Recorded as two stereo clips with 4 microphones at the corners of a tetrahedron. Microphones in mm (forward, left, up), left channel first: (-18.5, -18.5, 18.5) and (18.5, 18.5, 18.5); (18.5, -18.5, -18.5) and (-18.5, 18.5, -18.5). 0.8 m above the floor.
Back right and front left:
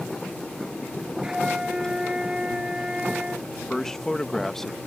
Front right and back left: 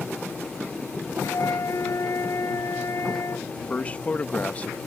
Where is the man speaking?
65° right.